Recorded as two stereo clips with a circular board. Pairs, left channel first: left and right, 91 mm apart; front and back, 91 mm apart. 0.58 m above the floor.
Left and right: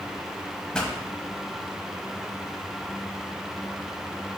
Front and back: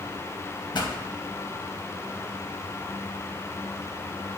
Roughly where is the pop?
Ahead.